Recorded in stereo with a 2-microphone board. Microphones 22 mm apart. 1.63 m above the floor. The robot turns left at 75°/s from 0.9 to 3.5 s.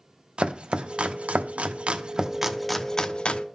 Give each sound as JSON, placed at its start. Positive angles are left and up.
{"t": 0.4, "sound": "chopping", "side_deg": -45, "distance_m": 0.9}